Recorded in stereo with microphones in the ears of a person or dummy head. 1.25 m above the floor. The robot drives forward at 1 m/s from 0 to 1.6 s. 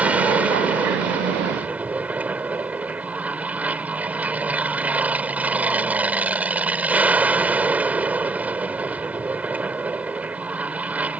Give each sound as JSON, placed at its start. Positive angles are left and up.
{"t": 0.0, "sound": "an aircraft", "side_deg": -5}